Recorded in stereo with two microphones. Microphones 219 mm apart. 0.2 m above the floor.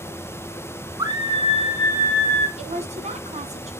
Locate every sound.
1.0 s a scream: 15° right (ahead or behind), 1.9 m; by 2.5 s 45° right (ahead or behind), 1.9 m
2.6 s a woman speaking: 30° right (ahead or behind), 1.8 m